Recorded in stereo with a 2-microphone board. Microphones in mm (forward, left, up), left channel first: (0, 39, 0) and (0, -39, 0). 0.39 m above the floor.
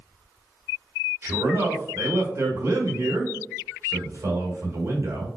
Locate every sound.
1.2 s a man speaking: 35° right (ahead or behind), 1.2 m